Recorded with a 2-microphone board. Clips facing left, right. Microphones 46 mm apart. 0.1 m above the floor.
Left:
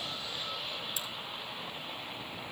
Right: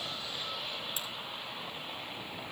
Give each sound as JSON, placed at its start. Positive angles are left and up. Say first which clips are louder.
{"t": 1.0, "sound": "a crack", "louder": "even", "side_deg": -40, "distance_m": 2.0}